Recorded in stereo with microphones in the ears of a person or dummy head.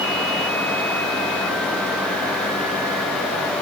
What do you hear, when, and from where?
Only background noise.